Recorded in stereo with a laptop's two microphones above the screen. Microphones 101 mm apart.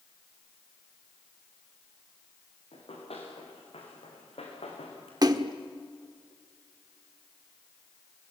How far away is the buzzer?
No buzzer in this recording.